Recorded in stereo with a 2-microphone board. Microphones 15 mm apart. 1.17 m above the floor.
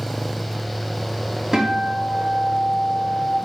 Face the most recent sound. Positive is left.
turn(degrees=-40)  # may be behind; listen again after turning